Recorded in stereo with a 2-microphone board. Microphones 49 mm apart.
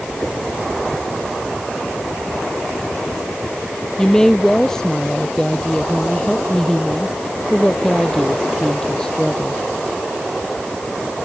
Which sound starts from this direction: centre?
A woman speaking, at 4.0 s.